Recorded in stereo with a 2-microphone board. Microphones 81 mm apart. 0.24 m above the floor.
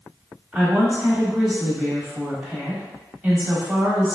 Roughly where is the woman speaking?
Centre.